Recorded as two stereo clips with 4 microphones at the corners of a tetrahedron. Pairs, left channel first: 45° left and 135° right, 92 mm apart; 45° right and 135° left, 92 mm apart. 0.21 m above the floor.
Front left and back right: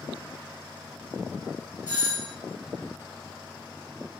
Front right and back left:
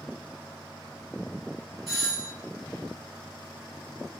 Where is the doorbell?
125° right, 1.9 m.